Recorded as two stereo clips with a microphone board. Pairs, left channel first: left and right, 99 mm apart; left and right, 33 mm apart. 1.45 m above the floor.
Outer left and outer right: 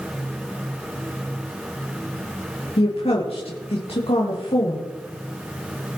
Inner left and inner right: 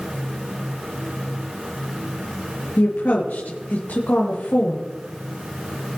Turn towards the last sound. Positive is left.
turn(degrees=70)  # may be behind; listen again after turning